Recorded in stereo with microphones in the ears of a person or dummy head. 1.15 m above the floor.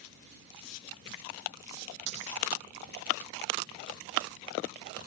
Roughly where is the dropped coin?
Right.